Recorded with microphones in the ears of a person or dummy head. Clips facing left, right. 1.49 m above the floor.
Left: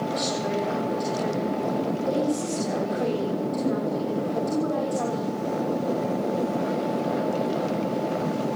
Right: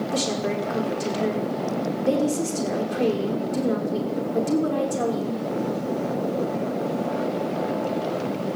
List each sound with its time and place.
0.1 s a woman speaking: 45° right (ahead or behind), 5.5 m